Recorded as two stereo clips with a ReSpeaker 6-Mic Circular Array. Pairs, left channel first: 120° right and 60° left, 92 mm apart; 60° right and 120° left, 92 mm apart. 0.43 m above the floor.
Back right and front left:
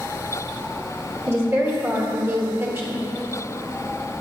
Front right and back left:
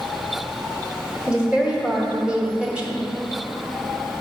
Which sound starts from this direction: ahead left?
A woman speaking, at 1.3 s.